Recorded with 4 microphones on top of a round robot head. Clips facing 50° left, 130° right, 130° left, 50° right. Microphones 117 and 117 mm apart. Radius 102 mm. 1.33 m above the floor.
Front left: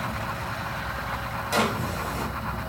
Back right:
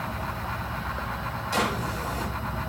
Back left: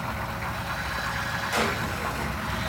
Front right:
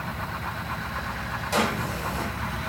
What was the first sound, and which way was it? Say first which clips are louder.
A drawer: front left 2 dB, front right 3 dB; 15° left.